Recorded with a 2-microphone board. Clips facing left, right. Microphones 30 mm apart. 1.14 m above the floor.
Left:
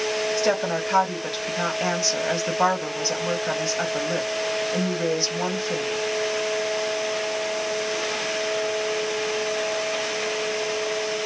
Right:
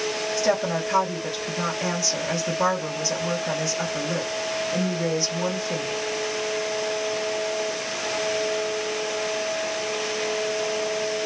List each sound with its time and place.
0.4 s a woman speaking: 35° left (ahead or behind), 1.7 m